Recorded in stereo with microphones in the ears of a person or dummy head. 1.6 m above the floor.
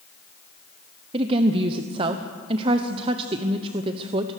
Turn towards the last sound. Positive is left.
turn(degrees=-35)  # may be behind; listen again after turning